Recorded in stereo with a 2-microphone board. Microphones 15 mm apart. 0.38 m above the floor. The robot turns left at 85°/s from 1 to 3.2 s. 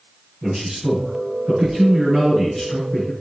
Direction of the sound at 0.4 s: 55° right.